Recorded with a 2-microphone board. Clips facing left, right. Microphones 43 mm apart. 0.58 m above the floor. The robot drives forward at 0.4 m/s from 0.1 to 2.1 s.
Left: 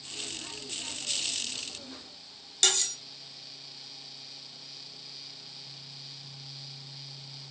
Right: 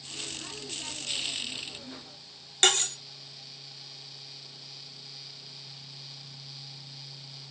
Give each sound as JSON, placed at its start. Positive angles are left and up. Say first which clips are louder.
{"t": 2.6, "sound": "cutlery clinking", "louder": "right 4 dB", "side_deg": -35, "distance_m": 0.7}